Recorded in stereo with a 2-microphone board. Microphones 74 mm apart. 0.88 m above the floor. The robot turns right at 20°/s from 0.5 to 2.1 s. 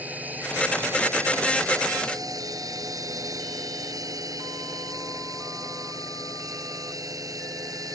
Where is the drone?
155° right; by 8.0 s 125° right.